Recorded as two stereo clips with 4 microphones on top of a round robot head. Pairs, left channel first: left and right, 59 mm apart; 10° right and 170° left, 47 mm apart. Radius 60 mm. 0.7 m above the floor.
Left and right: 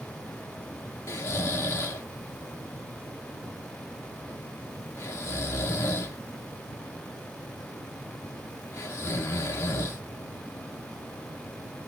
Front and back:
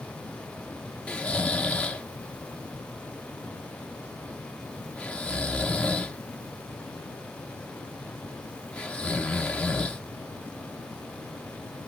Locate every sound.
1.1 s snoring: 50° left, 0.6 m